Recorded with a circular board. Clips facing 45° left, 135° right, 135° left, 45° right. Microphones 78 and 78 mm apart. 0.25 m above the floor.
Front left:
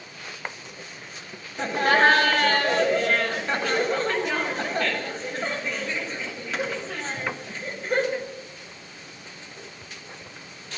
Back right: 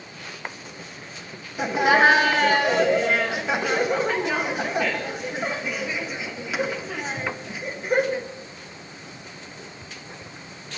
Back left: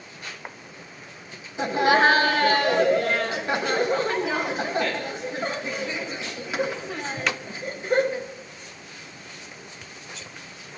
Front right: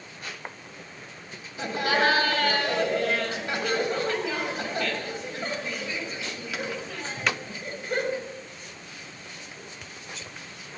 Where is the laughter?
155° left, 1.5 m.